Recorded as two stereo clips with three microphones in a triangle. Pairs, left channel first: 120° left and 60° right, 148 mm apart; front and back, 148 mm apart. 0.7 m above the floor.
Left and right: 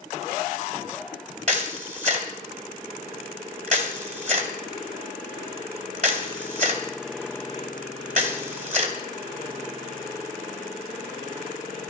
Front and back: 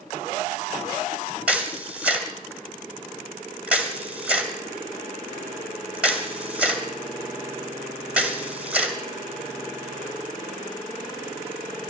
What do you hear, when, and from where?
1.5 s a camera shutter: 100° right, 2 m